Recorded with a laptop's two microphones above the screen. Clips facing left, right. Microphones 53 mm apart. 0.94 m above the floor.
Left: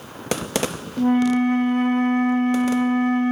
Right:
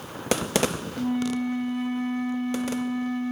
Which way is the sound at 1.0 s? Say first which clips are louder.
Left 9 dB; 55° left (ahead or behind).